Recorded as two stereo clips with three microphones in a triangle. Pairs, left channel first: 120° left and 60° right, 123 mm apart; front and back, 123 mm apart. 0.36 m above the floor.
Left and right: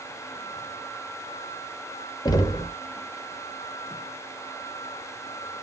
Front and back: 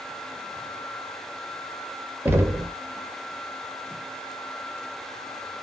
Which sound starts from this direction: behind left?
Knocking, at 2.2 s.